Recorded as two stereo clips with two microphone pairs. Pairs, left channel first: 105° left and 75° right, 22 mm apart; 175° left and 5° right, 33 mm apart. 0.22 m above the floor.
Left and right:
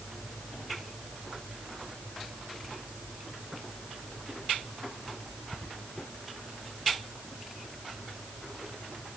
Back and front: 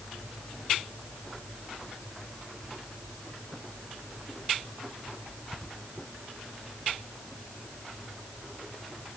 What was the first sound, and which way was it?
Only background noise.